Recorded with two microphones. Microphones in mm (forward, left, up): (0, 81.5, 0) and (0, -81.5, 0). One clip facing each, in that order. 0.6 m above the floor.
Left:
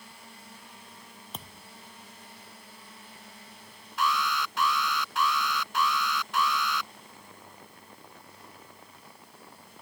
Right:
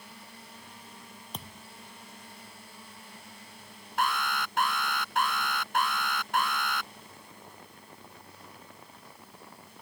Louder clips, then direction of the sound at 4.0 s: Left 1 dB; 50° right (ahead or behind).